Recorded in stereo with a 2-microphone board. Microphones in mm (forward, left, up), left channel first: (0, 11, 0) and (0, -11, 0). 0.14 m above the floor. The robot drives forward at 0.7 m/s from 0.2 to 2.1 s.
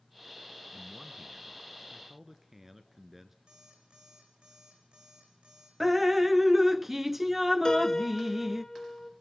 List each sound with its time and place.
0.7 s a man speaking: 20° right (ahead or behind), 1.3 m; by 3.4 s 15° right (ahead or behind), 1.7 m
3.5 s an alarm clock: 60° right (ahead or behind), 4.5 m
5.8 s dripping: 10° right (ahead or behind), 0.5 m
7.7 s a piano: 35° left (ahead or behind), 0.9 m